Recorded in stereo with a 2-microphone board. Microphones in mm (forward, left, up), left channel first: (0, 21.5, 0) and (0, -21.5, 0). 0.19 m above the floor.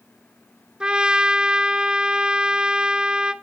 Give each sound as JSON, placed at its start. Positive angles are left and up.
{"t": 0.8, "sound": "a trumpet", "side_deg": -20, "distance_m": 0.6}